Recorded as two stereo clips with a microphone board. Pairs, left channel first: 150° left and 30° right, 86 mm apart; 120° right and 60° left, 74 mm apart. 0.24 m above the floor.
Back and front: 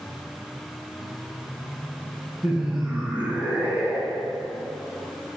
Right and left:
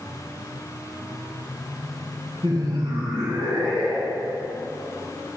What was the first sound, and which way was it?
Laughter, 50° left.